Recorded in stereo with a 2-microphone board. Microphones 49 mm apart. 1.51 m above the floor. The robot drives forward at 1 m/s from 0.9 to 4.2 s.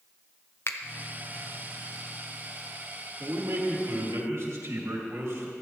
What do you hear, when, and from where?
0.7 s a finger snap: 55° left (ahead or behind), 0.6 m
3.2 s a man speaking: 80° right, 2 m; by 5.5 s 70° right (ahead or behind), 2.5 m